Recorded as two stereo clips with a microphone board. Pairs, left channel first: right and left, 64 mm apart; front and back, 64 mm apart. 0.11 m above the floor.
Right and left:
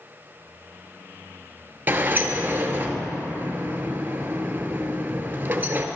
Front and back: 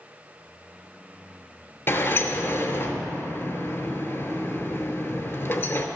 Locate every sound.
1.9 s a sliding door: 45° left, 0.6 m